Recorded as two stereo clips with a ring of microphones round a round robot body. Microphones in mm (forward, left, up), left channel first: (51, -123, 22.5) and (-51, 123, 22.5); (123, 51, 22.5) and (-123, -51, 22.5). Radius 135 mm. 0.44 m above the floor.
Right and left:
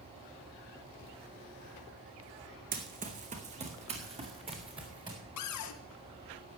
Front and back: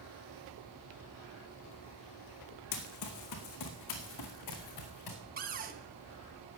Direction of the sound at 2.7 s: 50° left.